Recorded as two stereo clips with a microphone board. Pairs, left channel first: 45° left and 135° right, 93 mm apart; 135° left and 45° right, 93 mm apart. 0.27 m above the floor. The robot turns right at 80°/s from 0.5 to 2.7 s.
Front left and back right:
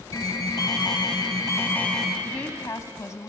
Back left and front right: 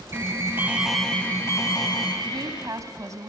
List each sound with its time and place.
0.1 s an alarm: 10° left, 2 m; by 2.1 s 140° left, 2 m
2.2 s a woman speaking: 40° right, 1.5 m; by 3.3 s 5° right, 1.5 m